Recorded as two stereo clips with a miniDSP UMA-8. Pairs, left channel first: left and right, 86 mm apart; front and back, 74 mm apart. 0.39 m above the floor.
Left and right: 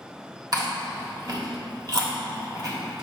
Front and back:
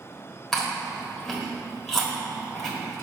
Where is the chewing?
80° right, 1.6 m.